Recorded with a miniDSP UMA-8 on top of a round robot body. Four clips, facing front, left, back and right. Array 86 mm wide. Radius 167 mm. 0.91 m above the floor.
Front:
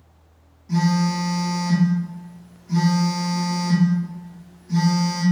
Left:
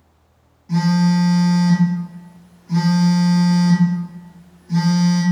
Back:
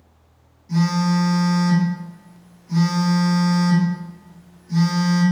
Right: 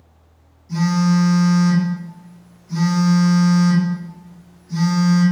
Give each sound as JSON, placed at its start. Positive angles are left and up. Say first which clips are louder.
{"t": 0.7, "sound": "a phone buzzing", "louder": "left 1 dB, back 1 dB", "azimuth_deg": 90, "distance_m": 1.0}